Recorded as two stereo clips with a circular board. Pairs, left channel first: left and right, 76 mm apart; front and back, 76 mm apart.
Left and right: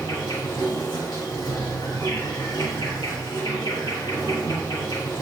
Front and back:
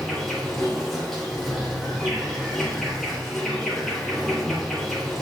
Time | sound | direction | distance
0.0 | an insect | 85° left | 3.5 m